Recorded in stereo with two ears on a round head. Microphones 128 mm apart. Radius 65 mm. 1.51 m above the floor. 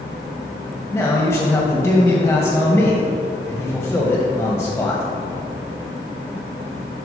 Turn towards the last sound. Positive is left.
turn(degrees=10)  # may be behind; listen again after turning